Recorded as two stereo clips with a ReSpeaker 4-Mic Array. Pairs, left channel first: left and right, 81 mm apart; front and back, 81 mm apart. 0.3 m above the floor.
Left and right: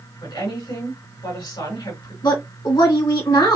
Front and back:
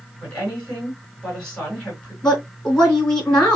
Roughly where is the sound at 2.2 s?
Left.